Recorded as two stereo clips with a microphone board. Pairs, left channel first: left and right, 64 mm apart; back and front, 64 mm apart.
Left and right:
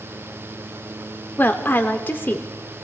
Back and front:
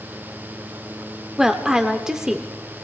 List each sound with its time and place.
1.4 s a woman speaking: 75° left, 0.9 m